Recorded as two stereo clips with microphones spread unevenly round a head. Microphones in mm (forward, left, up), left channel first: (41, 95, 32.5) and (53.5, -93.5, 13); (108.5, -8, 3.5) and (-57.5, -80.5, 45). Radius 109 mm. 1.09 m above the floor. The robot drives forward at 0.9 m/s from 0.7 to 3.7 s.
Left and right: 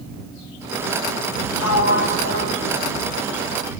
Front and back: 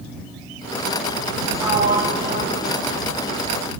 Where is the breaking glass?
No breaking glass in this recording.